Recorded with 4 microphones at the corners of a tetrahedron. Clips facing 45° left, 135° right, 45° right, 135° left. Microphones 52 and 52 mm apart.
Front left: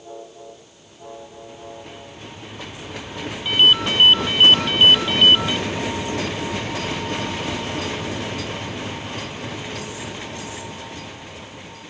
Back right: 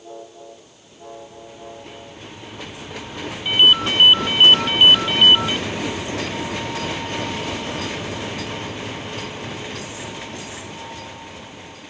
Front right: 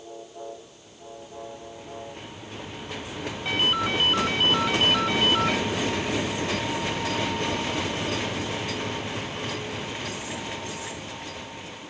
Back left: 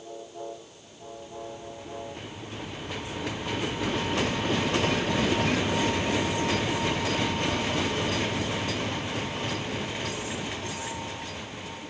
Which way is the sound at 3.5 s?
60° right.